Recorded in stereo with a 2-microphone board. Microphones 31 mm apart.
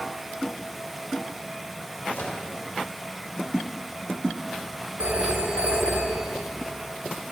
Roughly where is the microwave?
Left.